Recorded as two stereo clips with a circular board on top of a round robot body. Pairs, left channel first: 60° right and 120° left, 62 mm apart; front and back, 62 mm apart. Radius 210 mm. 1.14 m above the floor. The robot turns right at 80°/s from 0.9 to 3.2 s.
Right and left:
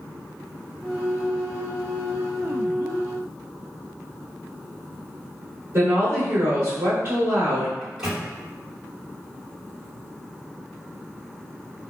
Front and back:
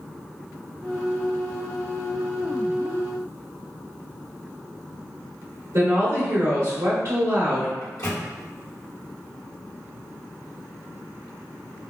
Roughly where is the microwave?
Ahead left.